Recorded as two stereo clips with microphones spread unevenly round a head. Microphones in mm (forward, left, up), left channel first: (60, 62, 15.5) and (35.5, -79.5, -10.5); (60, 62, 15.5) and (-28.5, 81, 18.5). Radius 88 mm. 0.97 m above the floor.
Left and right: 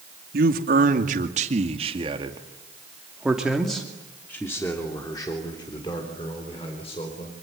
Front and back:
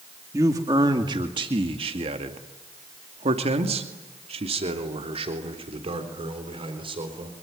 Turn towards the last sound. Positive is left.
turn(degrees=145)